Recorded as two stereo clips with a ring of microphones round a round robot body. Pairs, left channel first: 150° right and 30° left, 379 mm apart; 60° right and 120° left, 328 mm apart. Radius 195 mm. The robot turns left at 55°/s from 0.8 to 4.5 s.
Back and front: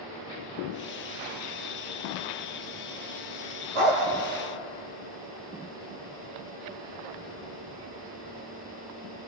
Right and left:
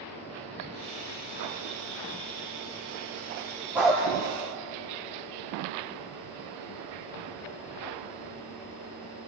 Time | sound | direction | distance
3.8 | a dog barking | 35° left | 6 m